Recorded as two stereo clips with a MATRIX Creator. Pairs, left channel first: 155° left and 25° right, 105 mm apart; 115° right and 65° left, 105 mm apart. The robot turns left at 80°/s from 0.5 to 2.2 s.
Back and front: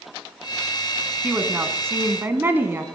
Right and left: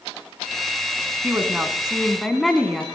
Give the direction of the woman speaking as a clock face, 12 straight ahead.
11 o'clock.